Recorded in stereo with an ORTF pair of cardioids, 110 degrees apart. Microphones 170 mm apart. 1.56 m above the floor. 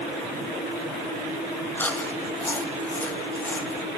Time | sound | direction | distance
1.8 | chewing | 10° left | 2 m